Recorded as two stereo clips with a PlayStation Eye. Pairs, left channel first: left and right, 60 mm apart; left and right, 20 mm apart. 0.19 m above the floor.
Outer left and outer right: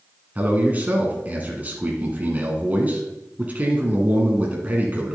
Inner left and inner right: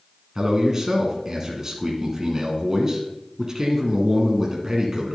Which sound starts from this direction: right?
A man speaking, at 0.3 s.